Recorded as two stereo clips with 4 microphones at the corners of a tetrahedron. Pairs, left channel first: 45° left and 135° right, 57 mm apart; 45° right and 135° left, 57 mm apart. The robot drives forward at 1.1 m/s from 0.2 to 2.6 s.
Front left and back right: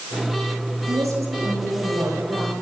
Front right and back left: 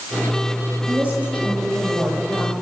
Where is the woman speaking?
155° right, 7.5 m; by 2.5 s 160° right, 9.5 m.